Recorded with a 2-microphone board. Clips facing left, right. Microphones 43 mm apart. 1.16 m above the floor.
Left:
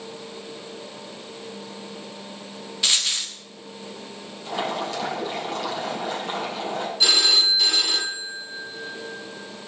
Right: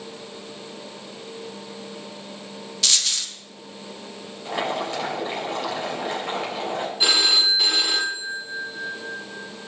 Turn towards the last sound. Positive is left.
turn(degrees=-20)  # may be behind; listen again after turning